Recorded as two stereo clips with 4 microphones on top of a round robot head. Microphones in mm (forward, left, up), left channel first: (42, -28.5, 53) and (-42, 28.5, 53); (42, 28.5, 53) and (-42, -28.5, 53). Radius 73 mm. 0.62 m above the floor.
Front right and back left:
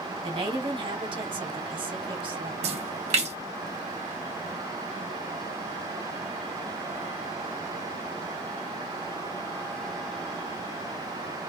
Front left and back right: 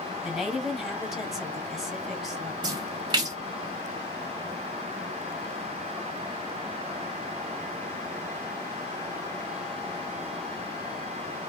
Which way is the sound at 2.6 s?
165° left.